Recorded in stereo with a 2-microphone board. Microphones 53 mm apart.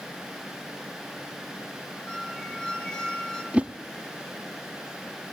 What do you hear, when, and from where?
2.1 s a squeak: 15° left (ahead or behind), 3 m
3.5 s a whoosh: 20° right (ahead or behind), 0.5 m